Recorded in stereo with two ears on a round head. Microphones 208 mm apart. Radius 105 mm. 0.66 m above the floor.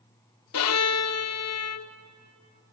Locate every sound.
0.5 s a violin: 80° left, 0.6 m